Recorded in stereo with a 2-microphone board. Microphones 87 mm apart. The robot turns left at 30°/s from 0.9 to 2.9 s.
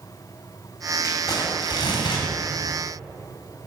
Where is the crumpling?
140° left, 3 m; by 2.2 s 105° left, 3 m.